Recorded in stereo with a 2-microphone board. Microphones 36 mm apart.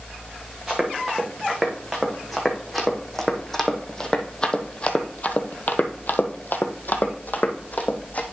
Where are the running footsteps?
5° right (ahead or behind), 3 m; by 8.2 s 50° left (ahead or behind), 1.7 m.